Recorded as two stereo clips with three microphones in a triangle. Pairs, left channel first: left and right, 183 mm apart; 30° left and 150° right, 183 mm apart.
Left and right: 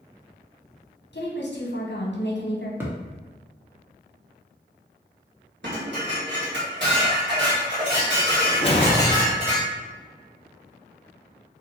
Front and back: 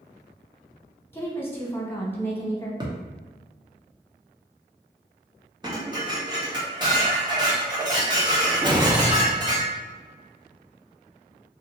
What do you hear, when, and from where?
1.1 s a woman speaking: 105° left, 1.0 m
2.8 s a thud: 150° right, 0.8 m
5.6 s dishes clattering: 85° right, 1.5 m
8.6 s a whoosh: 150° left, 0.7 m